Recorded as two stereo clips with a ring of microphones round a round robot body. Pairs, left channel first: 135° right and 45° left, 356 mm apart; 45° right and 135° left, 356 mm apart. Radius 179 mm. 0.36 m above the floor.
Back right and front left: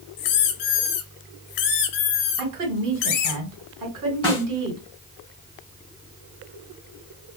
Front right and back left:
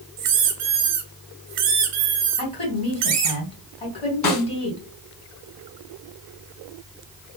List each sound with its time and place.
0.2 s a squeak: 175° right, 0.8 m
2.4 s a woman speaking: 25° left, 2.5 m
4.2 s a snare drum: 60° right, 2 m